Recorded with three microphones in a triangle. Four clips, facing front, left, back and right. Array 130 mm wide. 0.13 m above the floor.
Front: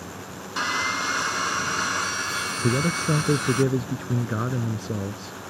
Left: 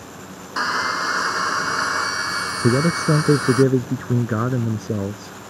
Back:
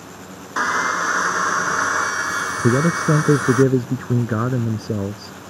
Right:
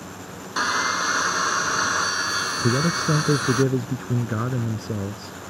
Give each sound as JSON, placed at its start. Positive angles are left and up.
{"t": 0.6, "sound": "sawing", "azimuth_deg": 170}
{"t": 2.6, "sound": "a man speaking", "azimuth_deg": 140}